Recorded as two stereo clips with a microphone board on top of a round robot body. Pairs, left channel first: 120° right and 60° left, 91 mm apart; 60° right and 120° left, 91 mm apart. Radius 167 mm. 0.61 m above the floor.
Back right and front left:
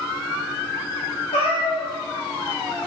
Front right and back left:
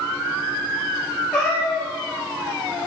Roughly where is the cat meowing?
Behind right.